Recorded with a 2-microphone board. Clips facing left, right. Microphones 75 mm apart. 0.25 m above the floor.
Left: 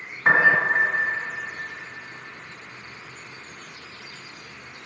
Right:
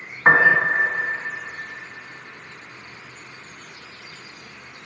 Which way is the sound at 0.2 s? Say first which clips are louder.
Right 3 dB; 35° right (ahead or behind).